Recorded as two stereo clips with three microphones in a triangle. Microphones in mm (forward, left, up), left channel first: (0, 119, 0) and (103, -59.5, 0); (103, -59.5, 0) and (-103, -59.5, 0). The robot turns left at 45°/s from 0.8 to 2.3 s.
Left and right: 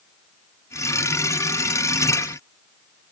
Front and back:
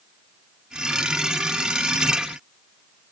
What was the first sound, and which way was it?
Only background noise.